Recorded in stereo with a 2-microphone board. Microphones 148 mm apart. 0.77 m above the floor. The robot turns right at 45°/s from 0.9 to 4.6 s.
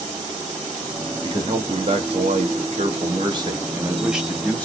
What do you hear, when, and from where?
1.2 s a man speaking: 140° right, 1.2 m; by 4.7 s 15° left, 1.2 m